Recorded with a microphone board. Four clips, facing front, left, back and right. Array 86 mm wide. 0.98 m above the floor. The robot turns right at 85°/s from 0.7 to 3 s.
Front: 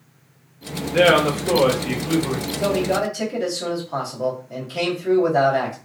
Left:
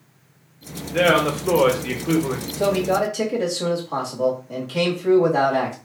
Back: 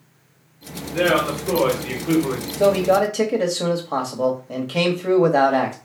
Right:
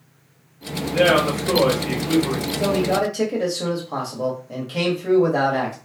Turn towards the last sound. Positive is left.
turn(degrees=-175)